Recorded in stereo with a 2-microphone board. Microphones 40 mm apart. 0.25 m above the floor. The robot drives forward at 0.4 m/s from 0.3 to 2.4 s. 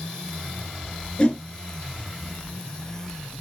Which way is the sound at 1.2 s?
25° left (ahead or behind).